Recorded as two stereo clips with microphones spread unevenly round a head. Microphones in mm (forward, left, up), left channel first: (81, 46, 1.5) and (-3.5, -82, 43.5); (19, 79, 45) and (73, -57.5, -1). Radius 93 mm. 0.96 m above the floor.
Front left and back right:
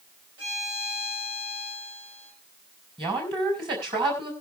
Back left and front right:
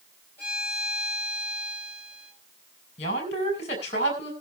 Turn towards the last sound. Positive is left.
turn(degrees=170)